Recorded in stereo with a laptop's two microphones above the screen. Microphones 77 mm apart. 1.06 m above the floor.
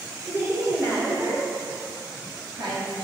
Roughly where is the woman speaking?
Right.